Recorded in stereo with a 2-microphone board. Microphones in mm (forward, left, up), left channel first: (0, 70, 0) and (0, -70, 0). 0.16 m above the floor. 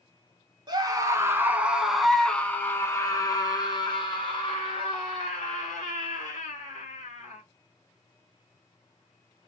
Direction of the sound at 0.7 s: 30° right (ahead or behind).